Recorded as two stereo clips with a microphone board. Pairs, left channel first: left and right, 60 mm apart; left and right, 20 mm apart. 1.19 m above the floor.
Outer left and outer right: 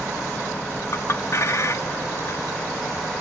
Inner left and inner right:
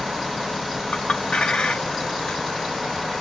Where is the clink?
45° left (ahead or behind), 0.6 m.